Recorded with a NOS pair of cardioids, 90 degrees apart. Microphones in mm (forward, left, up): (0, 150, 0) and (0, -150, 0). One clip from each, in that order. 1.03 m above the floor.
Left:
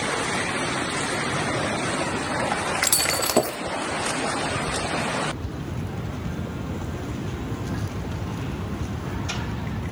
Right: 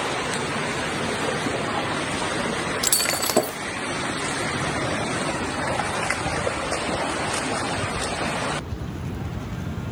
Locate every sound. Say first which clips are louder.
2.8 s breaking glass: even; straight ahead, 1.1 m